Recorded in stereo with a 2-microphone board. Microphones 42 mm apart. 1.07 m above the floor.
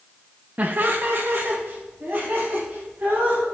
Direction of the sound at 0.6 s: 35° right (ahead or behind).